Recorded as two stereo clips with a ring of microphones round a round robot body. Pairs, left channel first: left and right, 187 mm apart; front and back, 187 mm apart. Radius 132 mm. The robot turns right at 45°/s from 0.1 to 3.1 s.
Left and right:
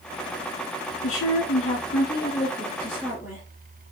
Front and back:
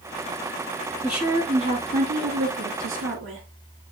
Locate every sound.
1.0 s a woman speaking: 95° left, 2.5 m; by 3.5 s 175° right, 2.5 m